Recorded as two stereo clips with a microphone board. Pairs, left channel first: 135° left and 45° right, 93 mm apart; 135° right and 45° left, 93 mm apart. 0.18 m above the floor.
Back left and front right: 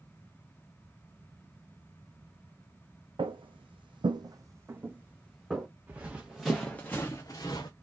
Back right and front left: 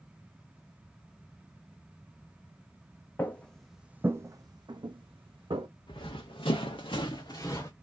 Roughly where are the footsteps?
Ahead right.